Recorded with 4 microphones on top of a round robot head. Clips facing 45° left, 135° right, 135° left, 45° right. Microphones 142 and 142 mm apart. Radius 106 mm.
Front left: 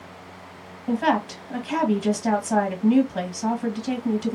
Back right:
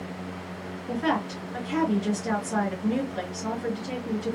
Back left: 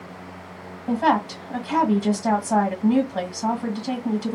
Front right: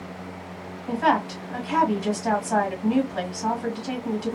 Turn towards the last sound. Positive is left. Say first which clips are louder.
# front left 5 dB, back left 2 dB
turn(degrees=80)